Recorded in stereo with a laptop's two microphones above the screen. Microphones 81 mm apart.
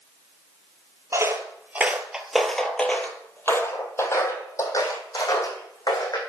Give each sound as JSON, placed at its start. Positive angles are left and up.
{"t": 1.1, "sound": "footsteps", "side_deg": -40, "distance_m": 1.4}